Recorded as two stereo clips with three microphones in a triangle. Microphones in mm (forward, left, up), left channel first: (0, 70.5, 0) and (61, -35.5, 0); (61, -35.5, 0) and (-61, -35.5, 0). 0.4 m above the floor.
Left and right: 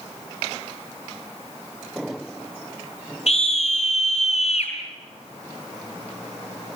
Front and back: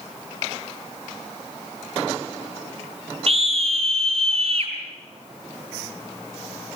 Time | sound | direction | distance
3.3 | a scream | 145° left | 5 m